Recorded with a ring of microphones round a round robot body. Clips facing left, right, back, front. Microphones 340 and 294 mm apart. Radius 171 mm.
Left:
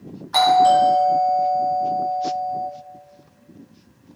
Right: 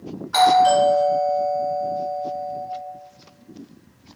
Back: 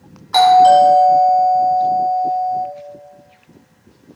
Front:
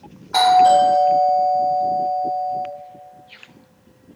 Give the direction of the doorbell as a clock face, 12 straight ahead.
7 o'clock.